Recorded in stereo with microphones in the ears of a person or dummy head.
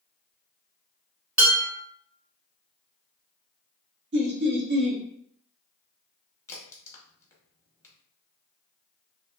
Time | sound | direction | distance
1.4 | dishes clattering | 10° right (ahead or behind) | 1.2 m
4.1 | laughter | 50° right (ahead or behind) | 0.7 m
6.5 | a crack | 15° left (ahead or behind) | 0.7 m